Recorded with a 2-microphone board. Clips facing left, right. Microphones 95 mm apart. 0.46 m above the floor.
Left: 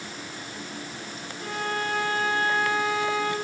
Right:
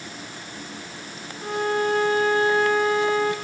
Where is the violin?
20° right (ahead or behind), 3 m.